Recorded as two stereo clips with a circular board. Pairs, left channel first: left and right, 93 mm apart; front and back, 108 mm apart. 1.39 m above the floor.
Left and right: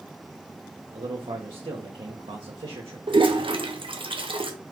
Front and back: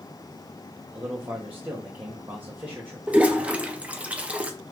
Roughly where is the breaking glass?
No breaking glass in this recording.